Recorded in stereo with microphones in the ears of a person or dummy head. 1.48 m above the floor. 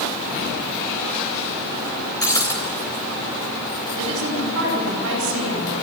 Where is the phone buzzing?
I don't hear a phone buzzing.